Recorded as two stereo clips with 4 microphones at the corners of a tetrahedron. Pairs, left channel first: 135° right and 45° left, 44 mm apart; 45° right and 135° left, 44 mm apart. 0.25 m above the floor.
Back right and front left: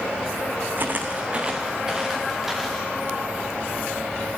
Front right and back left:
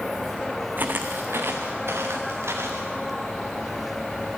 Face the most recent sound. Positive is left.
turn(degrees=135)